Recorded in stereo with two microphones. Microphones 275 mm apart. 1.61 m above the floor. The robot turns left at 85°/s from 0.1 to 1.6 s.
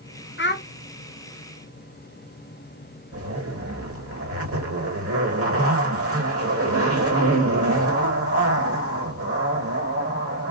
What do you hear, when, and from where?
0.4 s a child speaking: 45° left (ahead or behind), 0.6 m; by 0.7 s 30° left (ahead or behind), 0.6 m
3.1 s a zipper: 55° right (ahead or behind), 1.2 m